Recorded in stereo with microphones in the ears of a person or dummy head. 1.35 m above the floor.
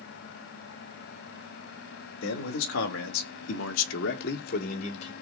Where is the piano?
I don't hear a piano.